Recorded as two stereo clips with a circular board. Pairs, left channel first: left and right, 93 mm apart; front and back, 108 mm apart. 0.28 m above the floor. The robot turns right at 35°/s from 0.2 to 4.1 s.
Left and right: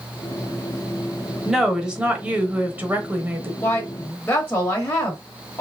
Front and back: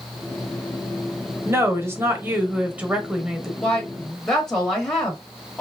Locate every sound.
1.4 s a woman speaking: 170° right, 0.9 m; by 3.5 s 100° right, 0.9 m
3.6 s a woman speaking: 60° left, 0.9 m; by 5.6 s 75° left, 0.9 m